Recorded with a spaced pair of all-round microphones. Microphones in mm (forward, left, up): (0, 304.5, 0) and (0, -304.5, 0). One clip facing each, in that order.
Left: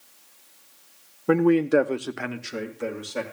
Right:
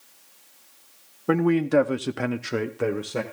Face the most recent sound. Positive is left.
turn(degrees=-70)  # may be behind; listen again after turning